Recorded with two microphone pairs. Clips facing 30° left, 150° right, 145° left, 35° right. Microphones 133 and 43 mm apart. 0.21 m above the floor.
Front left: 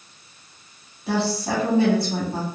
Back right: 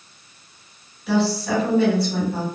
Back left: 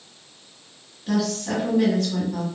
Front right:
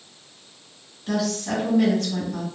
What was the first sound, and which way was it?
A woman speaking, 60° left.